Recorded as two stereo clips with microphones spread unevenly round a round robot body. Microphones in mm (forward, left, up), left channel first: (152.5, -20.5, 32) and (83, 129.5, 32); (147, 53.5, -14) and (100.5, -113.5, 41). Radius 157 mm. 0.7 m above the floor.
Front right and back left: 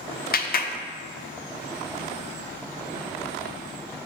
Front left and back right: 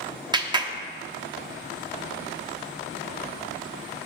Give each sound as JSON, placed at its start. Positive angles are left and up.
{"t": 0.3, "sound": "a clap", "azimuth_deg": -35, "distance_m": 0.9}